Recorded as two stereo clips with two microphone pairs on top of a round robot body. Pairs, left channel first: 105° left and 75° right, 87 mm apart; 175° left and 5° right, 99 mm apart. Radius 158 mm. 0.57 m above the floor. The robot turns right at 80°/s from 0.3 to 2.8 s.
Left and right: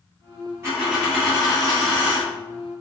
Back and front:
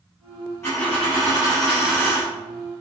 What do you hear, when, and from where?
0.6 s a dropped coin: 130° right, 0.5 m; by 2.3 s straight ahead, 0.5 m